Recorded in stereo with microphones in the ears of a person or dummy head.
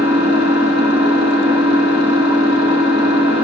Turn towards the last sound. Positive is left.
turn(degrees=-30)  # may be behind; listen again after turning